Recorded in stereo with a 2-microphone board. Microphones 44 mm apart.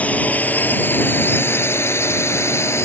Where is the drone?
35° left (ahead or behind); by 2.9 s 80° left.